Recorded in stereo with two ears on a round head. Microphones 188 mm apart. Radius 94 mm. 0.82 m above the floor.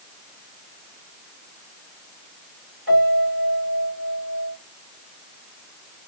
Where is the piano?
50° left (ahead or behind), 2.5 m.